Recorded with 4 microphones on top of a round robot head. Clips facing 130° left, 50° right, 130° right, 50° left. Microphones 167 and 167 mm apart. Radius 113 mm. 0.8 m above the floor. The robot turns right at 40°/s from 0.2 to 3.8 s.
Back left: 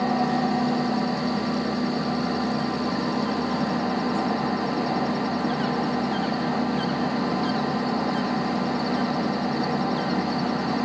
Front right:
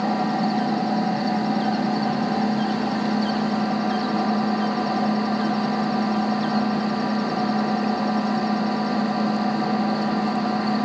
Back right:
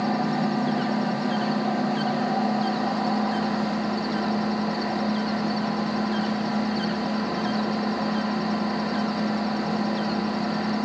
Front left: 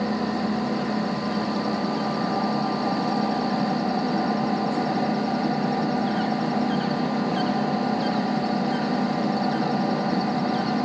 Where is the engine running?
140° right, 3 m; by 10.8 s 5° left, 3 m.